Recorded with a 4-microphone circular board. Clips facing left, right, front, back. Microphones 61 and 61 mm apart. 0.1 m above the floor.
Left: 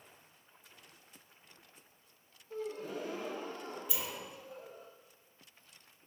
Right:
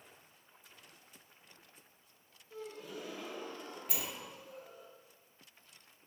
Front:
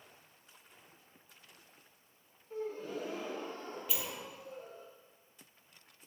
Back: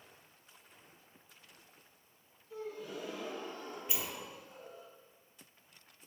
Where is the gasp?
45° left, 1.1 m.